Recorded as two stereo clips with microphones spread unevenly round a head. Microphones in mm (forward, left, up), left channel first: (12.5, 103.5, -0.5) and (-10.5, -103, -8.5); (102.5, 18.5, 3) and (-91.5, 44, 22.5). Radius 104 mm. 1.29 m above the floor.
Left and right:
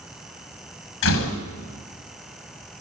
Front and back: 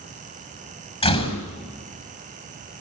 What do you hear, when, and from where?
1.0 s a door slam: 55° left, 6 m